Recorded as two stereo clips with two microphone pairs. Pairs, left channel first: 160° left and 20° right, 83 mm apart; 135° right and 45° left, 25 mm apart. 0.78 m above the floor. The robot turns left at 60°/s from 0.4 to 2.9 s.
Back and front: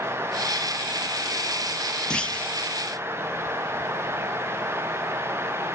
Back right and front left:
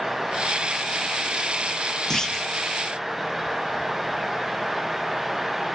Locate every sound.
2.1 s a clunk: 135° right, 0.6 m; by 2.5 s 155° right, 0.6 m